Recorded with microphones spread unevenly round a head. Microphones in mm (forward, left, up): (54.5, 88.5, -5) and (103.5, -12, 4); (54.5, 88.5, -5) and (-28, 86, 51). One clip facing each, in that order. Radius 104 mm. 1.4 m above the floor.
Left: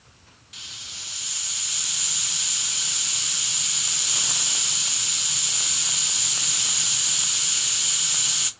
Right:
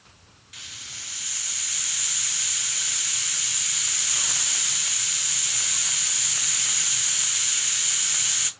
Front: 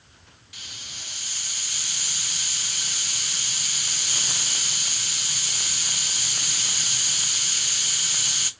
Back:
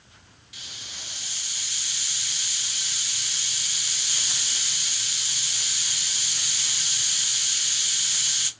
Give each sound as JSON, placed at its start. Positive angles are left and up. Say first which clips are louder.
{"t": 0.5, "sound": "a hiss", "louder": "even, even", "azimuth_deg": 50, "distance_m": 0.8}